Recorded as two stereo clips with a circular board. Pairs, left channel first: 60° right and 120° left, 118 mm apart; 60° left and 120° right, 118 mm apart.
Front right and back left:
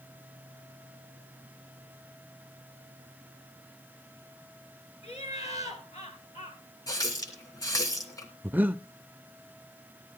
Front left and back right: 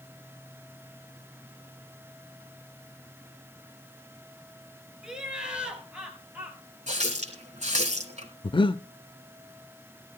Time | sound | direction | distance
5.0 | laughter | 35° right | 5.5 m
6.9 | a running tap | 120° right | 2.5 m
8.4 | breathing | 50° left | 0.5 m